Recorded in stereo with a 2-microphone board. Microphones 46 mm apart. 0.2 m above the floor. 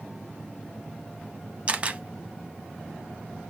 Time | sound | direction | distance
1.7 | a camera shutter | 30° right (ahead or behind) | 0.5 m